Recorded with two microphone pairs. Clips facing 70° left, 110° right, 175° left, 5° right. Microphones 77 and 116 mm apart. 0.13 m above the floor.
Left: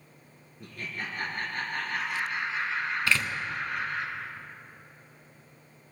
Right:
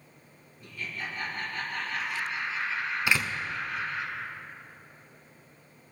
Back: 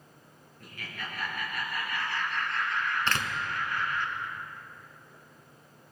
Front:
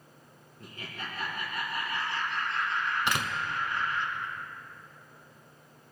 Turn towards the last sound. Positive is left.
turn(degrees=-55)